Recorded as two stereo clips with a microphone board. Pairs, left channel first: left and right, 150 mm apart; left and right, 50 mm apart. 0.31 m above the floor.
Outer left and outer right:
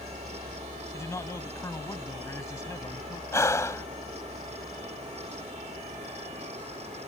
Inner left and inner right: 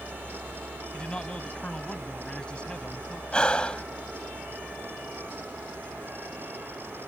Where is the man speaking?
20° left (ahead or behind).